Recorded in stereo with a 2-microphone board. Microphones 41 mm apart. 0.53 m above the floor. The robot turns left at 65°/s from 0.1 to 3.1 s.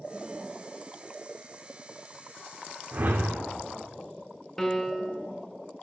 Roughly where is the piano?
Centre.